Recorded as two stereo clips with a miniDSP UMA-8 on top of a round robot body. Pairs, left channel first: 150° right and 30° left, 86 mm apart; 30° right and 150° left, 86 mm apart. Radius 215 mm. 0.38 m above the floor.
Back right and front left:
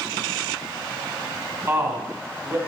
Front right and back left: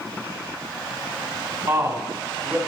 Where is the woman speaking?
90° left, 2.5 m.